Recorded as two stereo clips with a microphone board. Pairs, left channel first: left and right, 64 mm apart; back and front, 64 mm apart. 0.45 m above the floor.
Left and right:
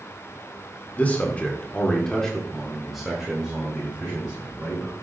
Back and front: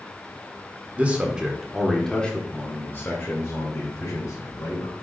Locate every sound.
0.9 s a man speaking: 50° left, 1.5 m; by 5.0 s 160° right, 2.5 m